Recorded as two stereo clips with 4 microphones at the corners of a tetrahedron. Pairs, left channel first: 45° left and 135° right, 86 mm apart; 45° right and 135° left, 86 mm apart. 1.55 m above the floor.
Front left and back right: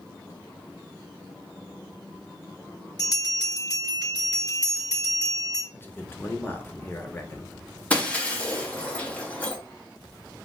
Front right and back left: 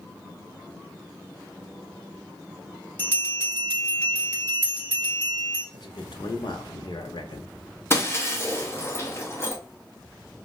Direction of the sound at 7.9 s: 20° right.